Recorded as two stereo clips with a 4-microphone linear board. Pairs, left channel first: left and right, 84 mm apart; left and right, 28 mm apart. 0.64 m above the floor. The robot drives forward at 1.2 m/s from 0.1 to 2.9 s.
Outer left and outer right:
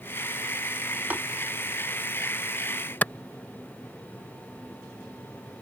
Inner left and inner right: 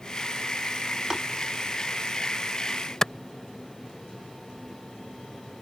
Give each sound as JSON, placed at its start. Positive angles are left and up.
{"t": 1.1, "sound": "tapping", "side_deg": -20}
{"t": 3.0, "sound": "a clap", "side_deg": 20}